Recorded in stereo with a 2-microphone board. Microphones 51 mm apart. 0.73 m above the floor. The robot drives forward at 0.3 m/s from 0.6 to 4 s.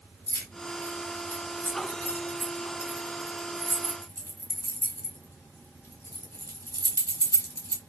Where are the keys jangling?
50° left (ahead or behind), 2 m; by 7.8 s 75° left (ahead or behind), 1.7 m.